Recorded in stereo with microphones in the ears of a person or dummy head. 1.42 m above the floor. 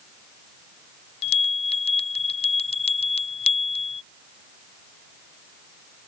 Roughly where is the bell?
Left.